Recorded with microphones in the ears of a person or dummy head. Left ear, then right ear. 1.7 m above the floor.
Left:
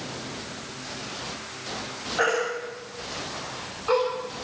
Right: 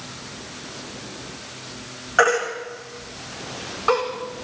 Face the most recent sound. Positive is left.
turn(degrees=-55)  # may be behind; listen again after turning